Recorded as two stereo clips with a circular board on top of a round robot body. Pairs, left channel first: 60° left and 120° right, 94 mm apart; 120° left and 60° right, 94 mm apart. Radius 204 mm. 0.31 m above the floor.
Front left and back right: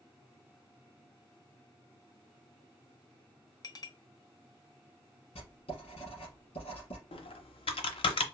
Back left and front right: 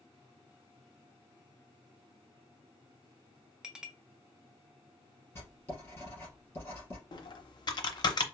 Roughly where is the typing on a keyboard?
Left.